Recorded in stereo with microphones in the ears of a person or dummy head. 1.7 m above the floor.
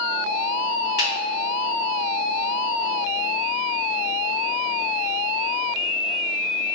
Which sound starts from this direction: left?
A finger snap, at 1.0 s.